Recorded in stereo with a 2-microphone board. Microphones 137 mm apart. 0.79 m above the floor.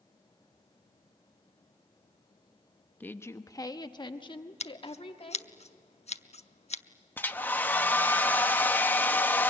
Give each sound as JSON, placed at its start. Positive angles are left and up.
{"t": 3.0, "sound": "a woman speaking", "side_deg": 10, "distance_m": 0.7}
{"t": 4.6, "sound": "scissors", "side_deg": 50, "distance_m": 0.7}
{"t": 7.2, "sound": "a hair dryer", "side_deg": 15, "distance_m": 0.9}